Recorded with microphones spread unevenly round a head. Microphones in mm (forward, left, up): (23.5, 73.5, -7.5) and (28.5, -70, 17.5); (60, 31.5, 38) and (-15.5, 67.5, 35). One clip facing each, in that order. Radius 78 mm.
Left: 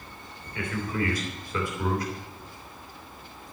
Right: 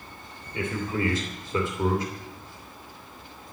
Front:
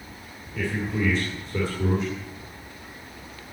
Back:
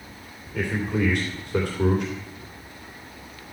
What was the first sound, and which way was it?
A man speaking, 160° right.